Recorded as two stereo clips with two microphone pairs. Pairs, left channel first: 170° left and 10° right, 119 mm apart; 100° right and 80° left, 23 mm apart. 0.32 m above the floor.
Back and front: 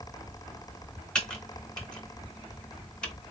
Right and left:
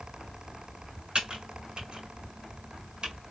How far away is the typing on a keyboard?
About 1.1 m.